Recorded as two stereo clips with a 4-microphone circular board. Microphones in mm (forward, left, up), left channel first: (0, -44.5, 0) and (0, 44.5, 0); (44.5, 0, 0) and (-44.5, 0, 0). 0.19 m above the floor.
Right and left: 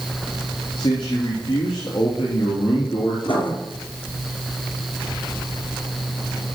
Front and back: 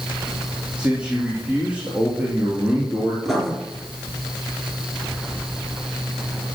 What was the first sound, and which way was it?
A man speaking, 105° right.